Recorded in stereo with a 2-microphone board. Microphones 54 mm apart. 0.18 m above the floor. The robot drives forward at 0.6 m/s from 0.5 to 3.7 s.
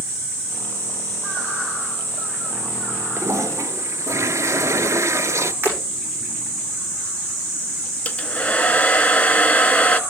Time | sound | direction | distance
3.2 | a toilet flushing | 70° right (ahead or behind) | 0.8 m
5.6 | breaking glass | 35° right (ahead or behind) | 6 m
8.1 | a hair dryer | 25° left (ahead or behind) | 0.7 m